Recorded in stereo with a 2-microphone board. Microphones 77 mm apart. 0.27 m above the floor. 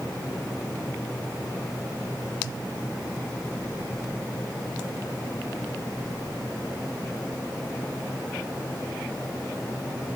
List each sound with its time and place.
Only background noise.